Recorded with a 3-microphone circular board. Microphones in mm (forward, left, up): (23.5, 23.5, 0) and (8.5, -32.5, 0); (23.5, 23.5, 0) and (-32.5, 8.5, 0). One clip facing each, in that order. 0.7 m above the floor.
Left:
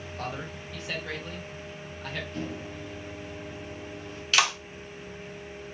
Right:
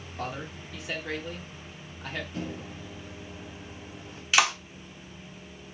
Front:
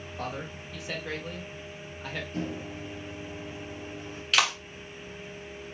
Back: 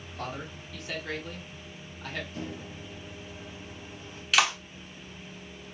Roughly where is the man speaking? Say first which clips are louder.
Right 1 dB, front 1 dB; ahead right.